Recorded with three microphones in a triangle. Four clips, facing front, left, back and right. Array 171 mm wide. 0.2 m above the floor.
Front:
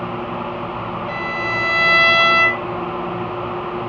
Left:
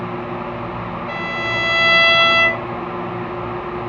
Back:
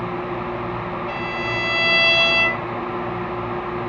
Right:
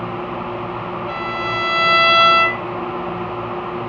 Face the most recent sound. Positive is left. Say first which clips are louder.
# right 1 dB, front 2 dB
turn(degrees=-75)